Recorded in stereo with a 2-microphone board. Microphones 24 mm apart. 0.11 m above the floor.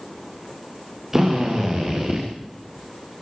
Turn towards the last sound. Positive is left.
turn(degrees=-15)  # may be behind; listen again after turning